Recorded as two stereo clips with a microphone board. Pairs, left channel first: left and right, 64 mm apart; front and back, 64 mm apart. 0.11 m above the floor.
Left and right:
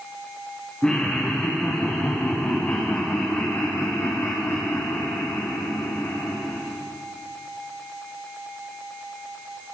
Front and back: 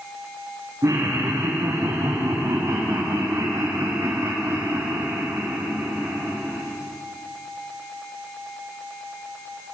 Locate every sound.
0.8 s laughter: 160° left, 6.5 m; by 6.6 s 110° left, 6 m